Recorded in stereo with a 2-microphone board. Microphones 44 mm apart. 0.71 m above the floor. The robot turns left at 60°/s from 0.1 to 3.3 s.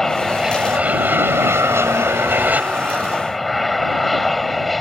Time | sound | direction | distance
0.0 | an aircraft | 10° left | ?